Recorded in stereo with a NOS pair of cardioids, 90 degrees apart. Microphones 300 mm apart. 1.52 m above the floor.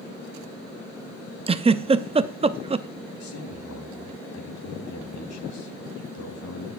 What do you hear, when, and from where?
1.5 s a giggle: 20° right, 0.6 m
3.2 s a man speaking: 65° left, 3.5 m